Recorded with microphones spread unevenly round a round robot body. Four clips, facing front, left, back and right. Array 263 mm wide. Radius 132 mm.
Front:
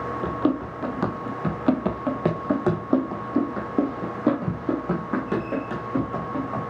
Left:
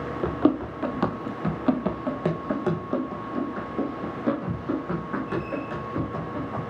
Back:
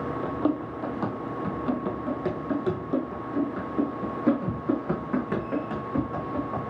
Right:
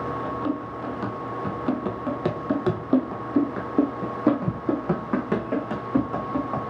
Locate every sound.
0.2 s running footsteps: 50° left, 1.2 m; by 6.6 s 60° right, 3 m